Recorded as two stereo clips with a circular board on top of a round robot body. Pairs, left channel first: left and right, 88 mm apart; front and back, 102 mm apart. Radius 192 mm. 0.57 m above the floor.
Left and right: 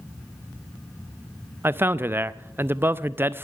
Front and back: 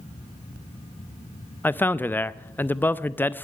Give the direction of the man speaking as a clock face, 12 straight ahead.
2 o'clock.